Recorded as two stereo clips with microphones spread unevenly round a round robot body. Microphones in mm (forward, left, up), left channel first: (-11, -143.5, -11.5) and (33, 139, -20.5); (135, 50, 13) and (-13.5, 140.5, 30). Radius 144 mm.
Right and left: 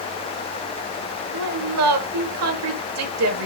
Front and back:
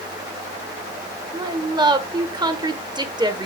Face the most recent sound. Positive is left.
turn(degrees=85)